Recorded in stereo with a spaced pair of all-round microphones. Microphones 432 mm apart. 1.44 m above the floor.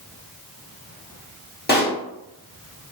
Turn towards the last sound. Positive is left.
turn(degrees=20)  # may be behind; listen again after turning